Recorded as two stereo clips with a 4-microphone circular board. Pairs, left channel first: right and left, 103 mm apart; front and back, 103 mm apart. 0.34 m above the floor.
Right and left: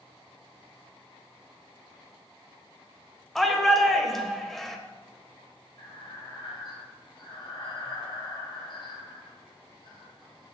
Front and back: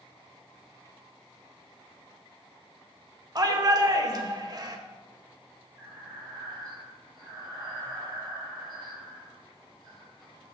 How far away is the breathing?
About 2.5 m.